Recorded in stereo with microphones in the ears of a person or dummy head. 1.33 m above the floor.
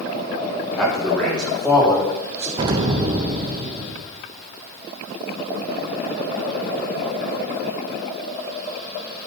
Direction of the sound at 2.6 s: 25° right (ahead or behind).